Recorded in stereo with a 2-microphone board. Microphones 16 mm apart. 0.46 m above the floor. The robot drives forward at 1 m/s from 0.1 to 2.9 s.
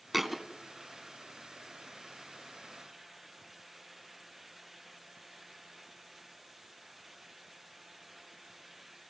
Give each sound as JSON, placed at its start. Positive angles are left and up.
{"t": 0.1, "sound": "a thud", "side_deg": -10, "distance_m": 1.2}